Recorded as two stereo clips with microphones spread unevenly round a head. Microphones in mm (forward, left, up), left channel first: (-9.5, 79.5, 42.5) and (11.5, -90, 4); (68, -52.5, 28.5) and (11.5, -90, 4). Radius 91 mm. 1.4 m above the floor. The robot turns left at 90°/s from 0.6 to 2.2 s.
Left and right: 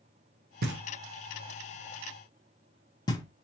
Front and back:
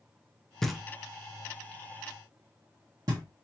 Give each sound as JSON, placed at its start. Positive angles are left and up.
{"t": 0.6, "sound": "knocking", "azimuth_deg": -50, "distance_m": 0.8}